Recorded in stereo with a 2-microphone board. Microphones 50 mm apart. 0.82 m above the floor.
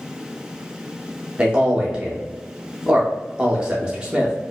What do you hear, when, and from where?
1.4 s a man speaking: 15° right (ahead or behind), 0.6 m